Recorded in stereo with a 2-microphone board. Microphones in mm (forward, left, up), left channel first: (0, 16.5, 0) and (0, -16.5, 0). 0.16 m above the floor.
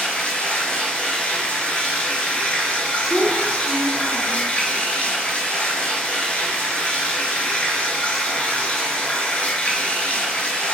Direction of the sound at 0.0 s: 45° left (ahead or behind).